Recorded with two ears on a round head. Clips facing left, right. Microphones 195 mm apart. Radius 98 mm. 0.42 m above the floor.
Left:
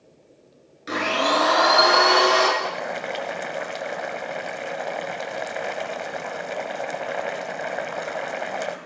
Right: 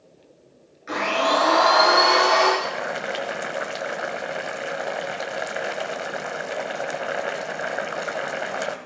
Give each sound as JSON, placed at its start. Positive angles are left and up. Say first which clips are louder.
{"t": 0.9, "sound": "a blender", "louder": "even", "side_deg": 50, "distance_m": 7.5}
{"t": 2.6, "sound": "boiling", "louder": "even", "side_deg": -5, "distance_m": 0.9}